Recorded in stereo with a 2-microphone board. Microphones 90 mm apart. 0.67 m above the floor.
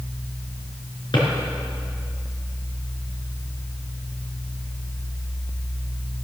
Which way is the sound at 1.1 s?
60° left (ahead or behind).